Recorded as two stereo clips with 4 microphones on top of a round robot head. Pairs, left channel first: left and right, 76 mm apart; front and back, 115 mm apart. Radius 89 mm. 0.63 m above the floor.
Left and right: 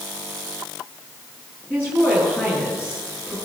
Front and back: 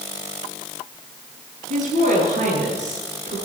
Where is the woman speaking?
165° left, 10 m.